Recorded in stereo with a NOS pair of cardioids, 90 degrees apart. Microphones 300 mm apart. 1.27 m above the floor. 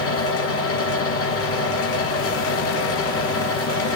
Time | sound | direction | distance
0.0 | a fan | 50° left | 1.3 m